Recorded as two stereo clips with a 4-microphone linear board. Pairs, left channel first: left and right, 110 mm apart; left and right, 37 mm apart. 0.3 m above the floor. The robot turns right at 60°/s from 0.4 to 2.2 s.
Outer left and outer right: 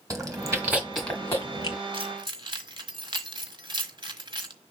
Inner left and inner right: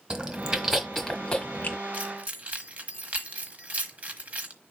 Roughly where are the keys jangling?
Right.